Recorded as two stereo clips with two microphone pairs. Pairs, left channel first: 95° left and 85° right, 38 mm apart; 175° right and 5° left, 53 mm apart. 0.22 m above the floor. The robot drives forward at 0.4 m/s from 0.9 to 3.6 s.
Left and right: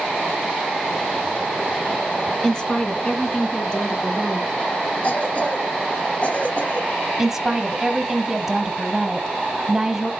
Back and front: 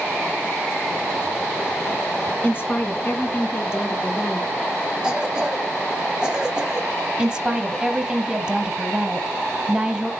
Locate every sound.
2.4 s a woman speaking: 155° left, 1.8 m; by 4.9 s 160° left, 2 m
5.0 s a cough: 75° left, 1.3 m
7.2 s a woman speaking: 30° right, 1.0 m